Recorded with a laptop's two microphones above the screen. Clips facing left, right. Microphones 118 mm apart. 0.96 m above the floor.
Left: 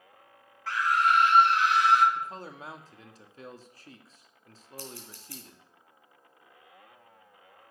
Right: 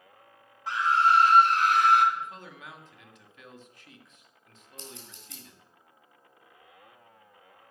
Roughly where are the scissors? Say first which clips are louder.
Left 3 dB; right.